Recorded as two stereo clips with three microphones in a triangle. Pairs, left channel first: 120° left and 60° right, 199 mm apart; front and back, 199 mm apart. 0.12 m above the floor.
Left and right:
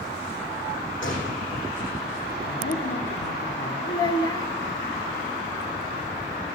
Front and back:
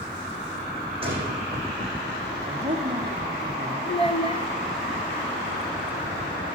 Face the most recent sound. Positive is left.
turn(degrees=55)